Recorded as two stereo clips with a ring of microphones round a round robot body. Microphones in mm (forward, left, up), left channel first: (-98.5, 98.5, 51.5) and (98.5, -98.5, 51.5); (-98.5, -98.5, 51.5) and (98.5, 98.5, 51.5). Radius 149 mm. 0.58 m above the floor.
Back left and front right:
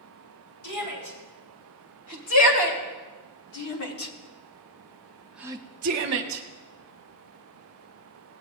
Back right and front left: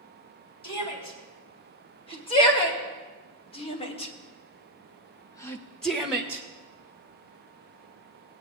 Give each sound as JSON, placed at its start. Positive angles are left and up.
{"t": 0.6, "sound": "a shout", "azimuth_deg": 155, "distance_m": 4.5}